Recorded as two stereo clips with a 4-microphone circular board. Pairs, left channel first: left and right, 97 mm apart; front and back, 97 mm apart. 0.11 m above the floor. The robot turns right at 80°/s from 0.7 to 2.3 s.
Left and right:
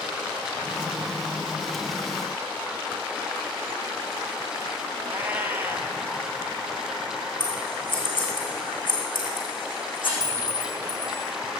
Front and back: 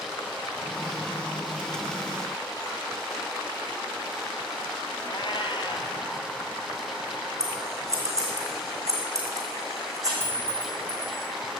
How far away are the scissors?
About 4.5 m.